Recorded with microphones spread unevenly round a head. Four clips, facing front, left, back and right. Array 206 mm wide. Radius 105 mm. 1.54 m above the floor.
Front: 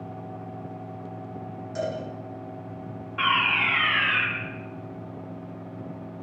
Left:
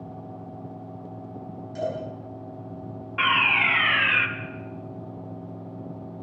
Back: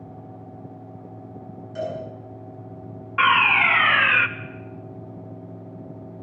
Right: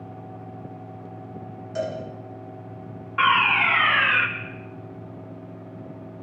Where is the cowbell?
90° right, 7.5 m.